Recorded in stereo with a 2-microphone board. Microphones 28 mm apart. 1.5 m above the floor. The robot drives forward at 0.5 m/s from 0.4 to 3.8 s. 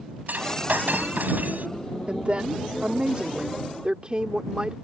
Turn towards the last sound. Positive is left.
turn(degrees=-40)  # may be behind; listen again after turning